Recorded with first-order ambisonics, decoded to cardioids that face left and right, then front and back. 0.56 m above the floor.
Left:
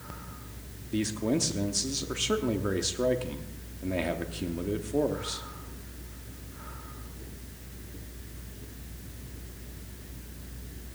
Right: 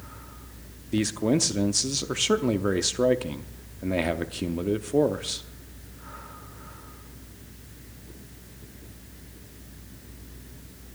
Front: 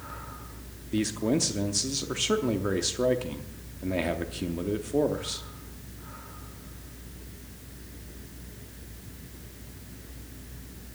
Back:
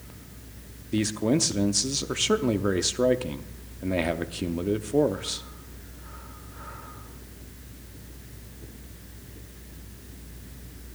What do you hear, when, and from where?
0.9 s a man speaking: 120° right, 0.7 m